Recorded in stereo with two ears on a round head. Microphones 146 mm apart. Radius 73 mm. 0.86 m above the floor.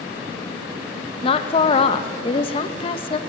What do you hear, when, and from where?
1.2 s a woman speaking: 35° left (ahead or behind), 0.9 m